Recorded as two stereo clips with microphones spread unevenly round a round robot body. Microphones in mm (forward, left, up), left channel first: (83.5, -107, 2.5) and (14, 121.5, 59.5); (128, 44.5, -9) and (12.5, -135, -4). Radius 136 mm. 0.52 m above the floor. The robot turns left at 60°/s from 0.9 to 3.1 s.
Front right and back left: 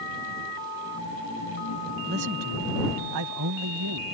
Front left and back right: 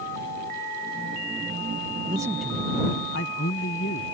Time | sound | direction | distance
2.1 | a man speaking | 170° left | ?